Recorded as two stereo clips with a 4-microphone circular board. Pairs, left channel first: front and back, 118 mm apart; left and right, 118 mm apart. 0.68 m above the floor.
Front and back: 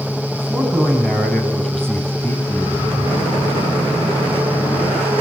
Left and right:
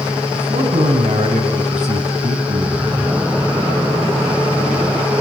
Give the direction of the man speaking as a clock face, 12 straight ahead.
3 o'clock.